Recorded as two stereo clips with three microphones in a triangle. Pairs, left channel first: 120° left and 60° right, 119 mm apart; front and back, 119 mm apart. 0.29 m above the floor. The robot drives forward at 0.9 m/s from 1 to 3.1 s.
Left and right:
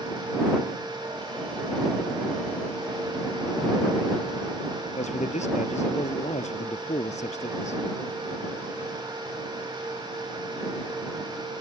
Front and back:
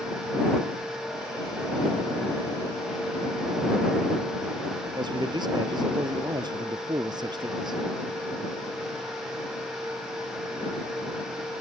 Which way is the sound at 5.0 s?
130° left.